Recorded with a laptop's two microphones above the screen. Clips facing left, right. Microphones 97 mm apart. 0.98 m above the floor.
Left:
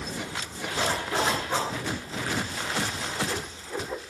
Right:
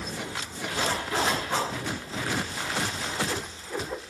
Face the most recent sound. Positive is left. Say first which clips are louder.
# left 1 dB
turn(degrees=-5)  # may be behind; listen again after turning